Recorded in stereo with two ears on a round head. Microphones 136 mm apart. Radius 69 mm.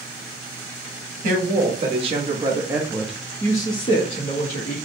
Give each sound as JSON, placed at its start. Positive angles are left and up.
{"t": 1.2, "sound": "a woman speaking", "side_deg": -50, "distance_m": 1.5}